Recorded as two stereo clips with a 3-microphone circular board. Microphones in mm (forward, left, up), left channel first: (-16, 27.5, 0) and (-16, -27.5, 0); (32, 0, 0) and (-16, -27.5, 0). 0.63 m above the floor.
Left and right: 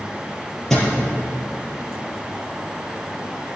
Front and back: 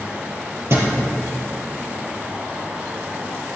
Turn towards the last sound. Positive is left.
turn(degrees=175)